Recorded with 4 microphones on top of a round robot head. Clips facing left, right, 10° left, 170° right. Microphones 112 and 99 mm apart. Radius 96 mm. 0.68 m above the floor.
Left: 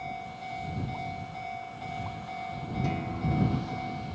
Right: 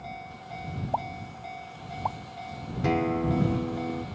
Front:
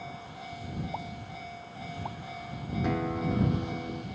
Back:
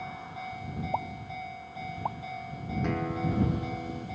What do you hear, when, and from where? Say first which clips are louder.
0.9 s a pop: right 4 dB, back 5 dB; 115° right
2.8 s a guitar: right 9 dB, front 1 dB; 75° right